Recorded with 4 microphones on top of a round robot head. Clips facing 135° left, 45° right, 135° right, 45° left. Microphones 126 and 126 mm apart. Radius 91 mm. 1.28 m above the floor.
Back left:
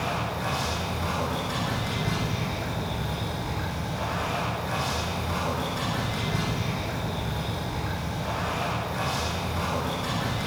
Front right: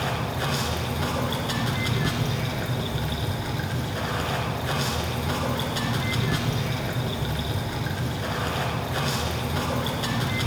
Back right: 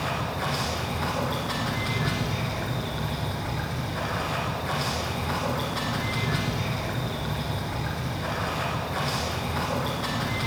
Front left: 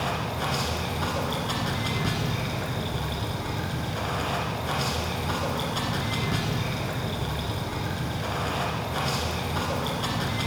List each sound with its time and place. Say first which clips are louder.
0.0 s running water: front right 1 dB, even; 30° right, 1.6 m